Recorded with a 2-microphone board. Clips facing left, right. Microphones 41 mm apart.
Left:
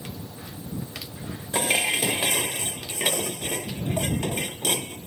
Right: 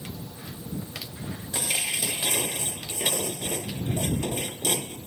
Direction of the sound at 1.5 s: 40° left (ahead or behind).